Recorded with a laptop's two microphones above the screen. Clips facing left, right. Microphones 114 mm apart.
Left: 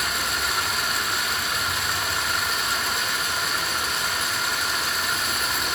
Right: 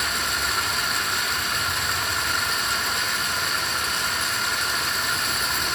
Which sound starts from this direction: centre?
Running water, at 0.0 s.